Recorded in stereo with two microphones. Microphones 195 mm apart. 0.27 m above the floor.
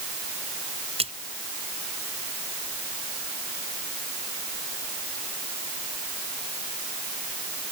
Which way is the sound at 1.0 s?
30° right (ahead or behind).